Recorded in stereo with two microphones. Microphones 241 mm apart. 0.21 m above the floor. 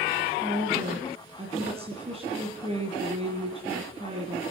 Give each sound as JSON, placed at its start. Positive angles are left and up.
{"t": 0.4, "sound": "a woman speaking", "side_deg": -25, "distance_m": 2.0}